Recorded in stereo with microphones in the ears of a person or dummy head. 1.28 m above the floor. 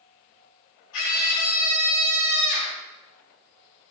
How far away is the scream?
About 4.5 m.